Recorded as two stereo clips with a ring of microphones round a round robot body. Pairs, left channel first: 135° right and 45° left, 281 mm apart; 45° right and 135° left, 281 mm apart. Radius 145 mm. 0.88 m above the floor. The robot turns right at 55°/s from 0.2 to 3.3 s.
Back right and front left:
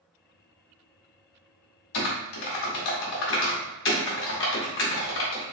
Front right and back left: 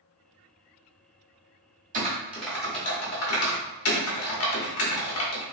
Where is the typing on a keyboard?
160° right, 1.1 m; by 5.4 s 85° right, 1.1 m.